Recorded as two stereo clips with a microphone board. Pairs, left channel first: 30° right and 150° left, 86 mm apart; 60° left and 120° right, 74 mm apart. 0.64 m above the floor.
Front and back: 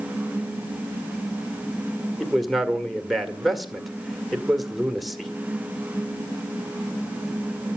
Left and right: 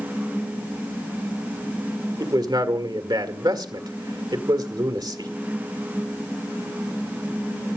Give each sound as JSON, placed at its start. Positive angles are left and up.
{"t": 2.2, "sound": "a man speaking", "azimuth_deg": -120, "distance_m": 1.9}